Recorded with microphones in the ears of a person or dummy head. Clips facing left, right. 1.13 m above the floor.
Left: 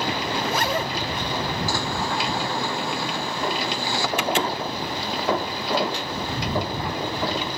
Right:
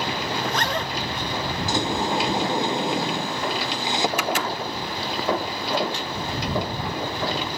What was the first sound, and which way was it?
A zipper, 5° left (ahead or behind).